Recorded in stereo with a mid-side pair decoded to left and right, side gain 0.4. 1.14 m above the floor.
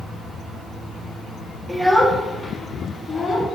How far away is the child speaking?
About 0.9 m.